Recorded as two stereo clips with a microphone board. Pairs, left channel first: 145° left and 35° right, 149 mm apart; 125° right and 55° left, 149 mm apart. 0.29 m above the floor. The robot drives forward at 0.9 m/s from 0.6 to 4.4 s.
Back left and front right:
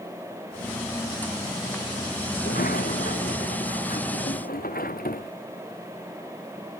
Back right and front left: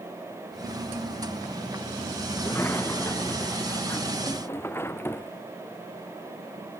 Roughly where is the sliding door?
Behind.